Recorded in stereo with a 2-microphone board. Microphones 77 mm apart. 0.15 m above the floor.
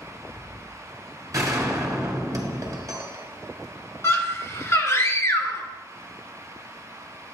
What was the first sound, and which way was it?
A gunshot, 45° right (ahead or behind).